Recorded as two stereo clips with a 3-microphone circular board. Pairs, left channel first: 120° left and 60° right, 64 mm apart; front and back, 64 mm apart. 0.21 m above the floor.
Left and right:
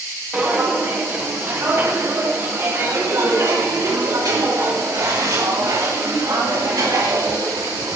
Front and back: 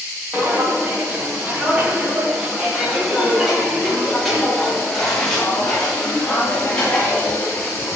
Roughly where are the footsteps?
Behind right.